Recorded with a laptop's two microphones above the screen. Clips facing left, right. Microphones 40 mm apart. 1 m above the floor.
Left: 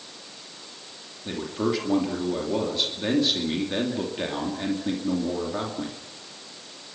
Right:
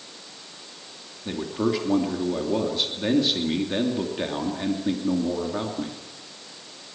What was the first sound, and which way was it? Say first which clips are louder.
A man speaking: right 1 dB; 5° right (ahead or behind).